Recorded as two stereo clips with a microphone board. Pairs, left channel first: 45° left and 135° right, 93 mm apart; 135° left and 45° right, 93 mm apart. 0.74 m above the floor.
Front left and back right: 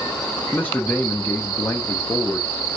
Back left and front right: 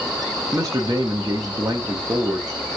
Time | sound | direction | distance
0.5 | a man speaking | 20° right | 0.6 m